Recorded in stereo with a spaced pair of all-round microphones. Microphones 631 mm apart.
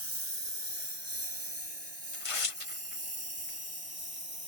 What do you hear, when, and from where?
0.0 s a lawn mower: 45° right (ahead or behind); by 4.5 s 35° right (ahead or behind)
2.1 s tearing paper: 55° left (ahead or behind)